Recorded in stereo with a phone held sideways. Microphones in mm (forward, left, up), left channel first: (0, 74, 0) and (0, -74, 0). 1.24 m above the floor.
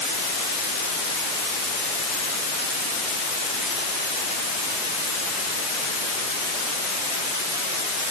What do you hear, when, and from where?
Only background noise.